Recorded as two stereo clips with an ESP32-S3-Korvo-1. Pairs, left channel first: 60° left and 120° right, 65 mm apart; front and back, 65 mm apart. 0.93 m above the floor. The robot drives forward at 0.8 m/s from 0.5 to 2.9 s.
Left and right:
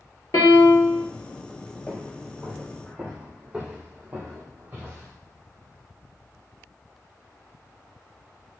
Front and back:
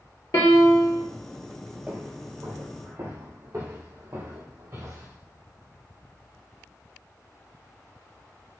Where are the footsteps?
115° left, 1.2 m; by 5.1 s 170° right, 3 m.